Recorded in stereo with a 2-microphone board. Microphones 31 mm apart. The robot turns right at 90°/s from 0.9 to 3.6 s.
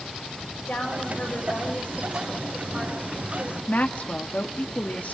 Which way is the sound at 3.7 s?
60° left (ahead or behind).